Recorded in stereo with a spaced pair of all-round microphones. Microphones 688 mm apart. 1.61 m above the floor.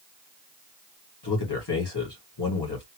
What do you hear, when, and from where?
1.2 s a man speaking: 35° left (ahead or behind), 1.9 m